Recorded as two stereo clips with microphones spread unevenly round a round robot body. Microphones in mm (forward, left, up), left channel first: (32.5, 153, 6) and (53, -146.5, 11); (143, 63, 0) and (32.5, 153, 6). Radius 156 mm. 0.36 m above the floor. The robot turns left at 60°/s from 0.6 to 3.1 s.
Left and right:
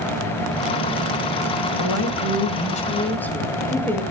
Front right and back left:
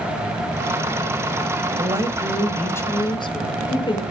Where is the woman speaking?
90° left, 1.8 m; by 4.0 s 10° left, 1.8 m.